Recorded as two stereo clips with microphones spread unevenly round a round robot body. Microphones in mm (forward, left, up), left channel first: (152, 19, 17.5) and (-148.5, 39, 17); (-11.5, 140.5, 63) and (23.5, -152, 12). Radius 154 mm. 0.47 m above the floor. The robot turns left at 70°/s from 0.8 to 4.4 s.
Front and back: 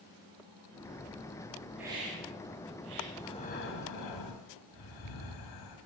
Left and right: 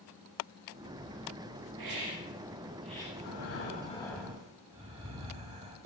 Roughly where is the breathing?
Left.